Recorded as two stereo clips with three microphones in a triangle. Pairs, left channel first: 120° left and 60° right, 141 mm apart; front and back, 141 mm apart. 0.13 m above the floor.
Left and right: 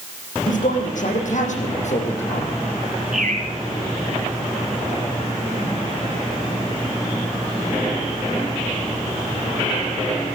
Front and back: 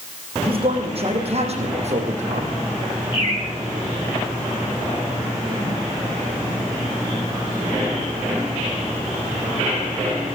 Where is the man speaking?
135° left, 5 m; by 2.5 s 150° left, 5.5 m.